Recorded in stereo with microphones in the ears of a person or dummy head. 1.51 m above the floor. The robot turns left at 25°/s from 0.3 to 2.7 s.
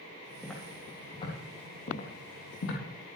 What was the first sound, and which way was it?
Footsteps, 5° right (ahead or behind).